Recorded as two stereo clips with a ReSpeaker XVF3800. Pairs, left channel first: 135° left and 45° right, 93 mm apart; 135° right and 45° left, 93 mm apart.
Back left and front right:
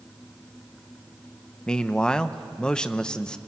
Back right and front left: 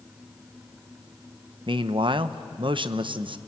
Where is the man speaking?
55° left, 0.9 m.